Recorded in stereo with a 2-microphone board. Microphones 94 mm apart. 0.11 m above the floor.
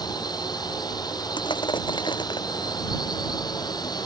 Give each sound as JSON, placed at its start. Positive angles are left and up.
{"t": 0.0, "sound": "a drone", "side_deg": 45}
{"t": 1.4, "sound": "crushing", "side_deg": 55}